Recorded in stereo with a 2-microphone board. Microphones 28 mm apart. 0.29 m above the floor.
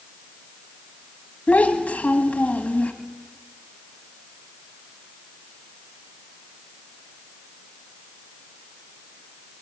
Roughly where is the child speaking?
Left.